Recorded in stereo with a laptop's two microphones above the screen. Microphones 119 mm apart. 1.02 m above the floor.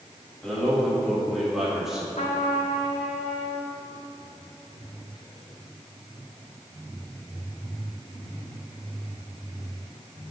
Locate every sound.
0.4 s a man speaking: 10° left (ahead or behind), 2.5 m; by 2.1 s 5° right (ahead or behind), 1.6 m
2.2 s a trumpet: 80° left, 1.2 m